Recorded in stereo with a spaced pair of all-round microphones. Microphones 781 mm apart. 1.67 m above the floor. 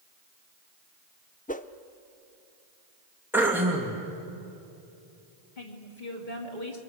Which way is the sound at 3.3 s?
5° right (ahead or behind).